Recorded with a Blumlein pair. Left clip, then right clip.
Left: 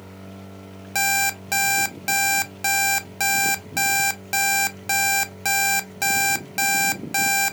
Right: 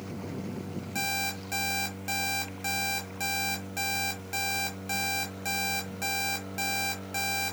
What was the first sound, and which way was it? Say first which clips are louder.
An alarm clock: left 10 dB; 30° left.